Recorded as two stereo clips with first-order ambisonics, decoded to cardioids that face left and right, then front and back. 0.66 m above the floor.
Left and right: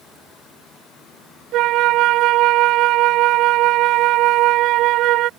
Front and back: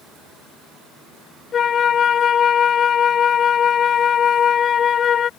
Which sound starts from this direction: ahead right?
A flute, at 1.5 s.